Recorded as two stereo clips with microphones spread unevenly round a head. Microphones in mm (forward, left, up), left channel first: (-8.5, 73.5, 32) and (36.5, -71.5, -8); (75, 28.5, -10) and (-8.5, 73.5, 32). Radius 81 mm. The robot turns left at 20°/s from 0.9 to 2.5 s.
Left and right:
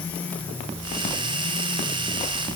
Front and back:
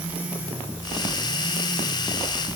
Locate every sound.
Only background noise.